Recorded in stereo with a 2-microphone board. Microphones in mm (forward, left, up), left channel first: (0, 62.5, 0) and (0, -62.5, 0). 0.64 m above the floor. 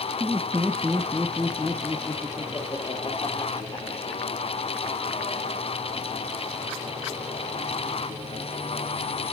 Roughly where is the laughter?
Right.